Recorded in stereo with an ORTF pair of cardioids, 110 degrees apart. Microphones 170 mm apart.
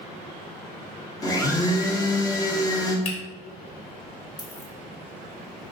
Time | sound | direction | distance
1.2 | a blender | 20° left | 1.6 m
3.0 | a finger snap | 40° left | 3 m
4.4 | a dropped coin | 25° left | 2.5 m